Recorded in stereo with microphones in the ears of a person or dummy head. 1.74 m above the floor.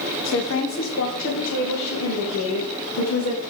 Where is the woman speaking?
65° left (ahead or behind), 1.5 m; by 3.4 s 85° left, 4 m.